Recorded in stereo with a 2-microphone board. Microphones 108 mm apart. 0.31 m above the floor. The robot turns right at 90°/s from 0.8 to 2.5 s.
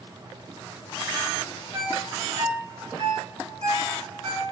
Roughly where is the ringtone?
Right.